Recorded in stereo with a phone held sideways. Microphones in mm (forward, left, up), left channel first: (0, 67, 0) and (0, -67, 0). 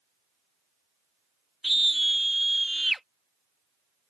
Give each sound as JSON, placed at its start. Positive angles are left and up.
{"t": 1.6, "sound": "a scream", "side_deg": 0}